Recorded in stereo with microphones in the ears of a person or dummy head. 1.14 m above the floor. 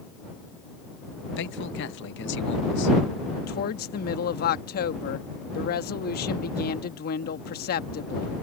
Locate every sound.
1.4 s a man speaking: 60° left (ahead or behind)
3.4 s a woman speaking: 50° left (ahead or behind)